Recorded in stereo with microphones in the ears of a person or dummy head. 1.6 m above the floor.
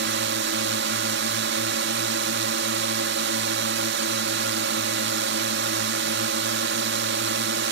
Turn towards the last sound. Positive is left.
turn(degrees=-55)  # may be behind; listen again after turning